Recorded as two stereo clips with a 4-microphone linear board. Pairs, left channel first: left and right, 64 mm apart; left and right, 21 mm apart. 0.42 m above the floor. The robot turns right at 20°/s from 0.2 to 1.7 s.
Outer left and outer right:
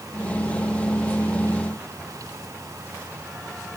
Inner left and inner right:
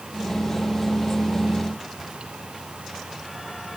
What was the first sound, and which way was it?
Only background noise.